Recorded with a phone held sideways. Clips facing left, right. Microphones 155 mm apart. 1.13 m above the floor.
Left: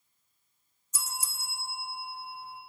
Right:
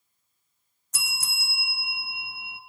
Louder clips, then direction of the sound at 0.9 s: Left 1 dB; 70° right (ahead or behind).